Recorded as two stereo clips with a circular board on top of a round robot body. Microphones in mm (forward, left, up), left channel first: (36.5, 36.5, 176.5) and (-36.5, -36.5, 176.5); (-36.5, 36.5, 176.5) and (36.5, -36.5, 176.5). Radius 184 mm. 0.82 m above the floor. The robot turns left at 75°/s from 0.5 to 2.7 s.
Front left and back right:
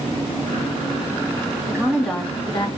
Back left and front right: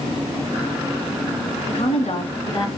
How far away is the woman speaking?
About 2 m.